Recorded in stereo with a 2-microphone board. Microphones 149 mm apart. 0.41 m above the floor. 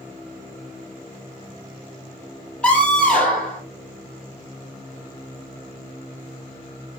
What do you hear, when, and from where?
2.6 s a scream: 5° left (ahead or behind), 9.5 m